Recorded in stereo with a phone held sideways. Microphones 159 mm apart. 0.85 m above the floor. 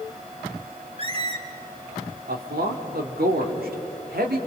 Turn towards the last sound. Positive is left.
turn(degrees=-75)  # may be behind; listen again after turning